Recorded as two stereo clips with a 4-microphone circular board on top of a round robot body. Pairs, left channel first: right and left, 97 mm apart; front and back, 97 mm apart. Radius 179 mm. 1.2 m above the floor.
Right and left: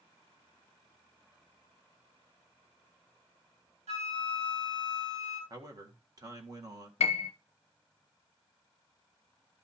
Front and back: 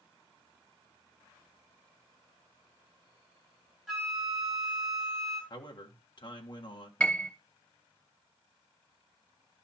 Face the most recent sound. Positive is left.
turn(degrees=-80)